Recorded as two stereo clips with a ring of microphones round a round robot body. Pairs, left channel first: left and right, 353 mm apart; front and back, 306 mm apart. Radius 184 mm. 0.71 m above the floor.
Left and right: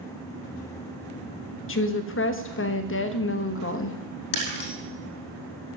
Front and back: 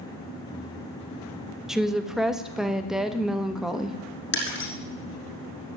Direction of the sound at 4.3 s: 55° left.